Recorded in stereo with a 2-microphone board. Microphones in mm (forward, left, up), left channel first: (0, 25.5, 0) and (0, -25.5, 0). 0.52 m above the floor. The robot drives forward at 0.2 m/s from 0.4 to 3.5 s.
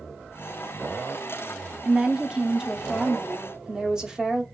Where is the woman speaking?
15° right (ahead or behind), 0.6 m.